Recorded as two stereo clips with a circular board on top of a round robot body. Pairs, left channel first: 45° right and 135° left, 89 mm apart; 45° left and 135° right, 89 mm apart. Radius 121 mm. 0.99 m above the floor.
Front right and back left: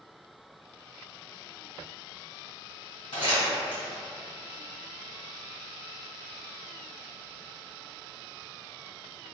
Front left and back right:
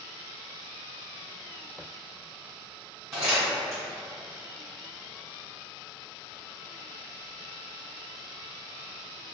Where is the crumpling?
75° right, 1.5 m.